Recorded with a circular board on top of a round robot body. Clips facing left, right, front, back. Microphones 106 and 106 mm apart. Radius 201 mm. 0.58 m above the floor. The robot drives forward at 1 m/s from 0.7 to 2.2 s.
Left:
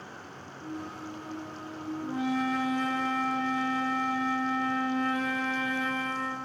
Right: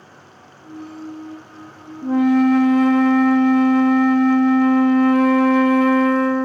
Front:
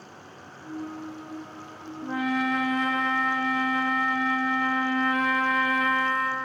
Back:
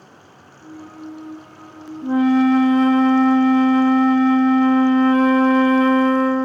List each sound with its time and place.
2.0 s a flute: 105° right, 0.6 m; by 6.5 s 120° right, 0.7 m